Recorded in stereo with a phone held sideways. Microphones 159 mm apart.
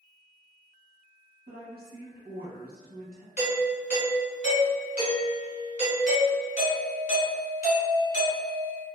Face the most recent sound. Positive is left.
turn(degrees=50)  # may be behind; listen again after turning